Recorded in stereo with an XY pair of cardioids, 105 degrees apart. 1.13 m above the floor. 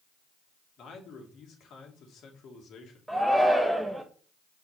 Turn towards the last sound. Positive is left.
turn(degrees=-5)